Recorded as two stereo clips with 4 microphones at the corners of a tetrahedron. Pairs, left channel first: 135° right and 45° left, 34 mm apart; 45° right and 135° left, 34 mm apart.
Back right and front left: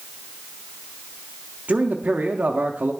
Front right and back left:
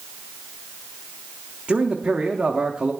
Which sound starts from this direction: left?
A man speaking, at 1.7 s.